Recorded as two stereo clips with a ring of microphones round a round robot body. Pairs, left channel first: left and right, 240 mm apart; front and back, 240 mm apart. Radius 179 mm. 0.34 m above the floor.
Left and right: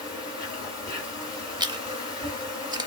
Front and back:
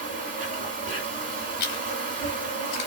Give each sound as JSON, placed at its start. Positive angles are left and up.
{"t": 0.0, "sound": "an insect", "azimuth_deg": 155, "distance_m": 2.5}
{"t": 1.6, "sound": "chewing", "azimuth_deg": -15, "distance_m": 0.5}